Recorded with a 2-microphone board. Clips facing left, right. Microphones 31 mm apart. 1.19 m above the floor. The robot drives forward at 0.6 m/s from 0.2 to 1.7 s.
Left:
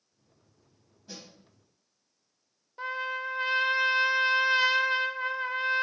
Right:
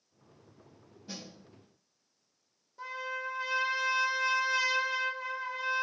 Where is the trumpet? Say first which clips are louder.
Left 5 dB; 45° left (ahead or behind), 0.6 m.